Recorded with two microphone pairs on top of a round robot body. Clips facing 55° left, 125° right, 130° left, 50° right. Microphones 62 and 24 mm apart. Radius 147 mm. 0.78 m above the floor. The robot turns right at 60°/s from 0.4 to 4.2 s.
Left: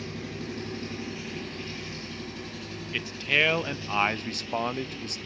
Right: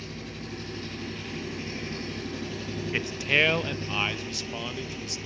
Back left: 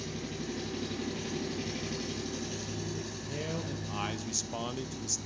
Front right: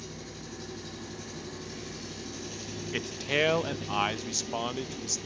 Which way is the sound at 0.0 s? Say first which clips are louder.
Left 3 dB, back left 4 dB; 90° left.